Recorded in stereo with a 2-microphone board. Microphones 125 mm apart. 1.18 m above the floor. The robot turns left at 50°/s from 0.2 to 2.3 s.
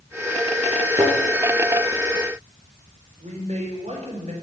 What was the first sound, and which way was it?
A thud, 35° right (ahead or behind).